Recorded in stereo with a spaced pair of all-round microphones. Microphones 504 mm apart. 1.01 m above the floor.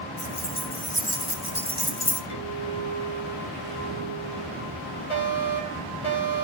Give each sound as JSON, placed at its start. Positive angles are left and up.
{"t": 0.2, "sound": "keys jangling", "side_deg": 75, "distance_m": 5.0}
{"t": 2.3, "sound": "a clink", "side_deg": 70, "distance_m": 6.0}
{"t": 5.1, "sound": "a fire alarm", "side_deg": 70, "distance_m": 6.0}